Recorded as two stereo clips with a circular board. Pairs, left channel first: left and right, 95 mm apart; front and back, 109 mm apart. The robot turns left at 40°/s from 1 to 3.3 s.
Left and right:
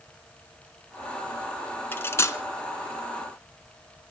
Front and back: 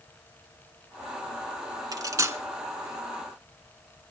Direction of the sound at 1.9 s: 145° left.